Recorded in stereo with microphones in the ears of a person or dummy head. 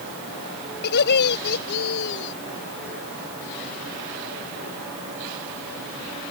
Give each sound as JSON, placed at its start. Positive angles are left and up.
{"t": 0.8, "sound": "laughter", "side_deg": 60}